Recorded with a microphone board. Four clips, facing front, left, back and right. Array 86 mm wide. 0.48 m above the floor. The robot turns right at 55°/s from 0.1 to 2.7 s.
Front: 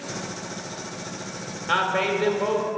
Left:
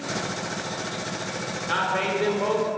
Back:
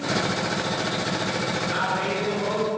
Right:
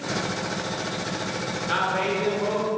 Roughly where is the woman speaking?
Ahead.